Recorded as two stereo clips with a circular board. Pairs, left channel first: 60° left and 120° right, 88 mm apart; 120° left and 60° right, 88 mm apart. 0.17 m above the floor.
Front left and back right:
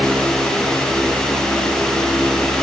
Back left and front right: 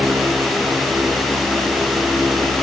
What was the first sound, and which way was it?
Only background noise.